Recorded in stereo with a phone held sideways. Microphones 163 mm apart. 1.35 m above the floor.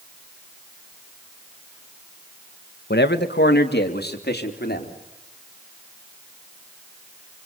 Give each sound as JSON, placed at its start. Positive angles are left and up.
{"t": 2.9, "sound": "a man speaking", "side_deg": 80, "distance_m": 1.6}